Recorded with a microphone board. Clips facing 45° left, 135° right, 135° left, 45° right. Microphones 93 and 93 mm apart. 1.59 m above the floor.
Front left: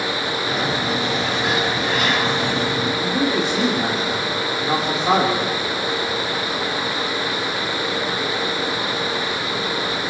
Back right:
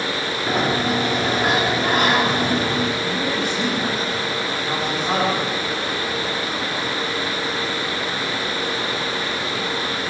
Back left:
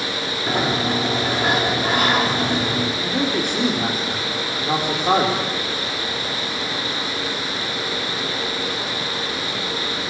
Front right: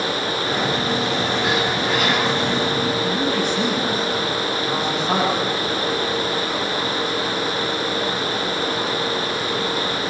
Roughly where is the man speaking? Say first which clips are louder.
Front left 3 dB, front right 1 dB; left.